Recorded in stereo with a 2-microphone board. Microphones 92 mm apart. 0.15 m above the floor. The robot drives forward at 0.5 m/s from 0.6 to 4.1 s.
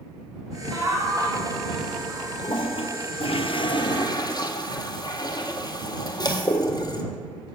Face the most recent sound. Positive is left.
turn(degrees=40)  # may be behind; listen again after turning